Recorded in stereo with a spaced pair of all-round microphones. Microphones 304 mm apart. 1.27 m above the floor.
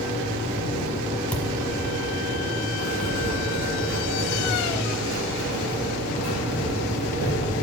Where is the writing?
65° right (ahead or behind), 2.5 m.